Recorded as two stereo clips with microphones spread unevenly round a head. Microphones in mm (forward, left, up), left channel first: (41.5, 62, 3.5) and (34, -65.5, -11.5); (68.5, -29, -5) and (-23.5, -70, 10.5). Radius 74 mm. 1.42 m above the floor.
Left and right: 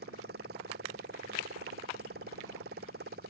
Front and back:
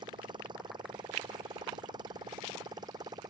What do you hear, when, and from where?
0.0 s a motorcycle: 115° right; by 3.3 s 110° right